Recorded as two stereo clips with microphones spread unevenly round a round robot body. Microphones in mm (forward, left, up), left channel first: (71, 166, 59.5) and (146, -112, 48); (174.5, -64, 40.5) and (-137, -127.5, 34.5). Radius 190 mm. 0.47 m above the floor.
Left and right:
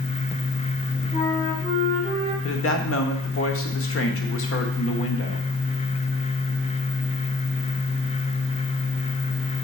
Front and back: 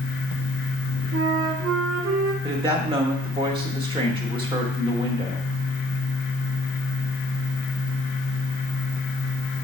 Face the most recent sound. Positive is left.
turn(degrees=125)